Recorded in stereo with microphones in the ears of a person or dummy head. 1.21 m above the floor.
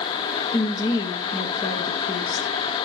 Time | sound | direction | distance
0.5 | a woman speaking | 25° left (ahead or behind) | 1.7 m